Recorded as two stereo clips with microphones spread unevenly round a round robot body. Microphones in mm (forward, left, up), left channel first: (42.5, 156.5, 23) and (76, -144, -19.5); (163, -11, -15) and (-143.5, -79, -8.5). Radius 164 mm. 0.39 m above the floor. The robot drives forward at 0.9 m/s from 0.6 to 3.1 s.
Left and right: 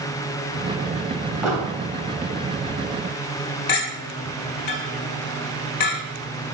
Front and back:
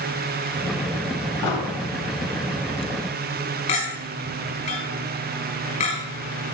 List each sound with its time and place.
1.4 s an explosion: 5° left, 2.5 m
3.7 s a clink: 80° left, 1.6 m